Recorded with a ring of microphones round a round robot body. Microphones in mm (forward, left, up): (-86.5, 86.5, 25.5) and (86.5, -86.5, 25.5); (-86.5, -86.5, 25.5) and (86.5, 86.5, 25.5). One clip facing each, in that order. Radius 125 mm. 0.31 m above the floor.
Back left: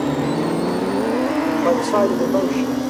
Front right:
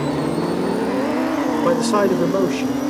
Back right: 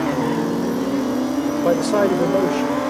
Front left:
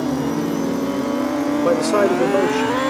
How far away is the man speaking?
About 1.1 m.